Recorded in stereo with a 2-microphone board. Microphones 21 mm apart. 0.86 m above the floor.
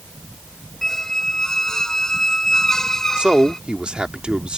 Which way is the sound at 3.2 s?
55° right (ahead or behind).